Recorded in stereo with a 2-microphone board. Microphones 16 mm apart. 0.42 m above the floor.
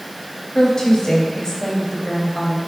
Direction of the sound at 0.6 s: 55° left (ahead or behind).